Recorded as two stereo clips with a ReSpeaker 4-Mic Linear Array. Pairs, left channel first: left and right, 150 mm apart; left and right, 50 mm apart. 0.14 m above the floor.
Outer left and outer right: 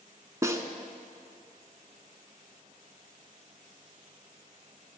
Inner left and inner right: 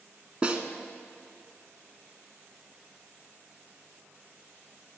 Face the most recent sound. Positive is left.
turn(degrees=-20)  # may be behind; listen again after turning